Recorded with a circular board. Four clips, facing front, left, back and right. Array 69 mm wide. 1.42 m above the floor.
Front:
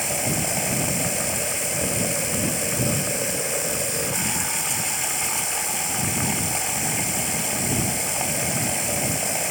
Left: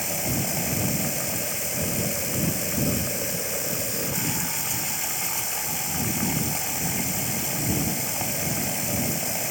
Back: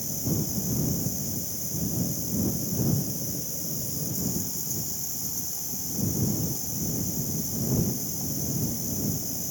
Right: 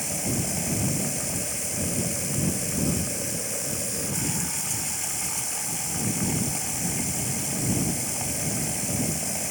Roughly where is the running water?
Ahead.